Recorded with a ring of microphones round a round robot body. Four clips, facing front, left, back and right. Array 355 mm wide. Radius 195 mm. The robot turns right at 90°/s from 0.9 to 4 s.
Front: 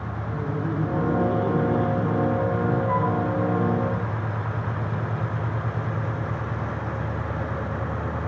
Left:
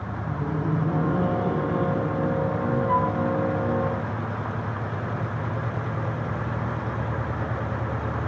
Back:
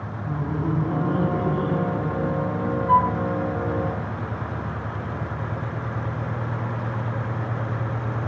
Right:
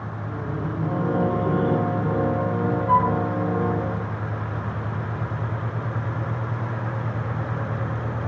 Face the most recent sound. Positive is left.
turn(degrees=-35)